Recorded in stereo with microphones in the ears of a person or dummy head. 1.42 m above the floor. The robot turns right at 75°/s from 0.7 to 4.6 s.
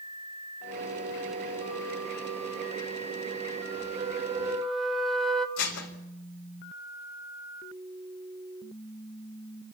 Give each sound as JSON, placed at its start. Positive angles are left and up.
{"t": 4.0, "sound": "a flute", "azimuth_deg": -50, "distance_m": 1.4}
{"t": 5.6, "sound": "dishes clattering", "side_deg": 65, "distance_m": 4.0}